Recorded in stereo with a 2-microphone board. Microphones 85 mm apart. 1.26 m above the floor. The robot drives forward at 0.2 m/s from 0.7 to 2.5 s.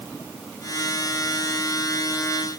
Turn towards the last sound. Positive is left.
No sound to turn to.